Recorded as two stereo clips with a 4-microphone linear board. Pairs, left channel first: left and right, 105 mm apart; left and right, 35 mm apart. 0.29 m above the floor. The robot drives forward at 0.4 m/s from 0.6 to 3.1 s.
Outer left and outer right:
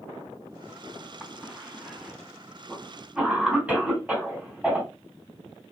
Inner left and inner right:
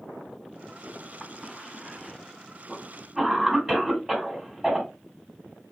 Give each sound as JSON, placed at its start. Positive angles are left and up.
{"t": 1.2, "sound": "a cough", "side_deg": -15, "distance_m": 1.8}